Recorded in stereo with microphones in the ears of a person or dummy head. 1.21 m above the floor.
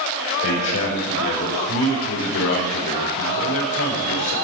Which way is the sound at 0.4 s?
65° left (ahead or behind).